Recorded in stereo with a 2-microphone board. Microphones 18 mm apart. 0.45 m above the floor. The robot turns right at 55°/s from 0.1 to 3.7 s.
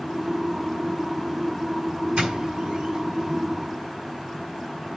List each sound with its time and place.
2.2 s a doorbell: 65° right (ahead or behind), 4.5 m; by 3.4 s 35° right (ahead or behind), 4.5 m